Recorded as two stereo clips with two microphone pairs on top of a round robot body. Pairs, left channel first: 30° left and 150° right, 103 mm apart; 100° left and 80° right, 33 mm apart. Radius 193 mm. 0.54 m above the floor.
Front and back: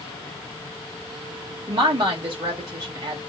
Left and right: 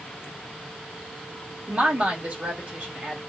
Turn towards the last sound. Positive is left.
turn(degrees=-125)